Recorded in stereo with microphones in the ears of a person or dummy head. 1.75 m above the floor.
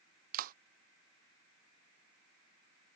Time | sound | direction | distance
0.3 | a clap | 55° right (ahead or behind) | ?